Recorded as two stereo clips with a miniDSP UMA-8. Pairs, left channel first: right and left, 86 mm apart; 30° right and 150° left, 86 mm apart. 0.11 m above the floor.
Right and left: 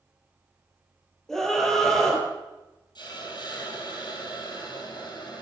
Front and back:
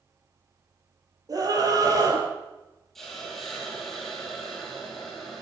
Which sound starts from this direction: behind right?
A hiss, at 3.0 s.